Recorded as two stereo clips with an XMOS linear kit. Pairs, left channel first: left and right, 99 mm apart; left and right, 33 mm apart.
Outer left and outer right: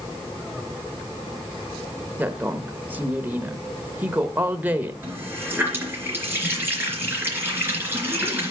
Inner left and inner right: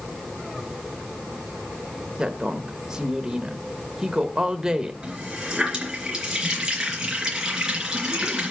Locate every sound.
2.2 s a woman speaking: 20° right (ahead or behind), 0.9 m
5.0 s a running tap: 20° right (ahead or behind), 3.5 m